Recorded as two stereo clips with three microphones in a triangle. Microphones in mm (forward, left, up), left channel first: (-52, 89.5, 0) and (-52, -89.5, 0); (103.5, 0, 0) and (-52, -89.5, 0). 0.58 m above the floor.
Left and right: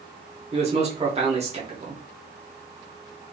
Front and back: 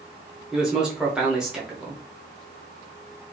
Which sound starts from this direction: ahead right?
A man speaking, at 0.5 s.